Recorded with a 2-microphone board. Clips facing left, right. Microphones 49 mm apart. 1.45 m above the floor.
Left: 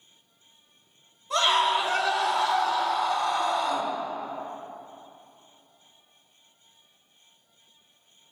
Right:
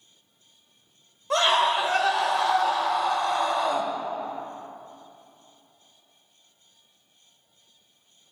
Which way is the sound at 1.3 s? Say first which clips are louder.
Right 1 dB; 65° right (ahead or behind).